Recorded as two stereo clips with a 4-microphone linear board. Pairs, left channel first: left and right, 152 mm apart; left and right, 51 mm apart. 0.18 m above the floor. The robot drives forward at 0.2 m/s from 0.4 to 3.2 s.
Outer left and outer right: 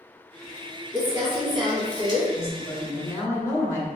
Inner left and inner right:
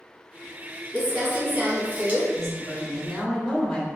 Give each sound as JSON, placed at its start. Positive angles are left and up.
{"t": 0.9, "sound": "crumpling", "side_deg": -30, "distance_m": 1.6}
{"t": 2.3, "sound": "a woman speaking", "side_deg": 20, "distance_m": 1.2}